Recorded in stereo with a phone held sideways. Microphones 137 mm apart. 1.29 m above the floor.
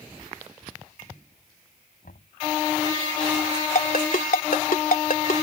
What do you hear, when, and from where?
2.0 s knocking: 80° left
3.8 s a ringtone: 75° left (ahead or behind)